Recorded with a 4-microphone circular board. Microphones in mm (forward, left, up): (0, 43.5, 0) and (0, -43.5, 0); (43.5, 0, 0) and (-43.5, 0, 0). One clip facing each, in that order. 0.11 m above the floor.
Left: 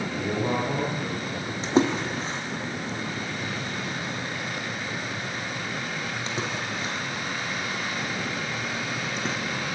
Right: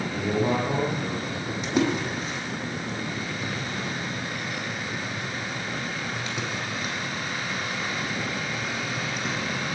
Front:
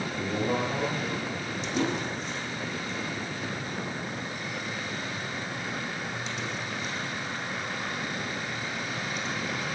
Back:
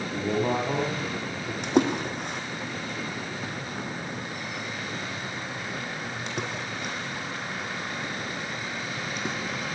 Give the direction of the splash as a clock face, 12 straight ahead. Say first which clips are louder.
Left 2 dB, back 6 dB; 7 o'clock.